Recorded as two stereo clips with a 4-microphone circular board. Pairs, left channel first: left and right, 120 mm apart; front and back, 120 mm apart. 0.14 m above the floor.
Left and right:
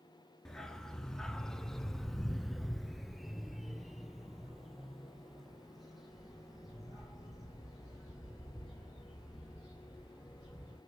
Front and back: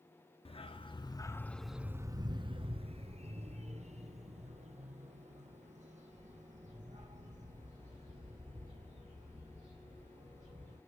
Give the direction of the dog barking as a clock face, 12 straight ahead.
12 o'clock.